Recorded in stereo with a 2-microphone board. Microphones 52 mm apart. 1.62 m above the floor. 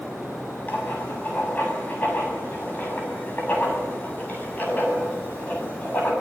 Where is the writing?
35° left (ahead or behind), 7 m.